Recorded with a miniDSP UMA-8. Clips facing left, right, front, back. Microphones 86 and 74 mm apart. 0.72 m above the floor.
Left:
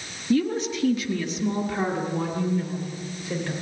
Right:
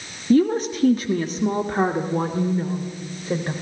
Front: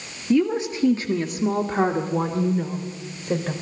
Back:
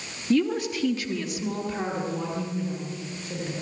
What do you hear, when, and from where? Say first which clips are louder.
0.3 s a woman speaking: right 5 dB, front 3 dB; 70° right, 1.1 m; by 3.5 s 35° right, 3.5 m